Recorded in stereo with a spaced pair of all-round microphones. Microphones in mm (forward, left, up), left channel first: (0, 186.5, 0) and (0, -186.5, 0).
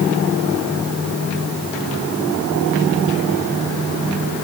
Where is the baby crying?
I don't hear a baby crying.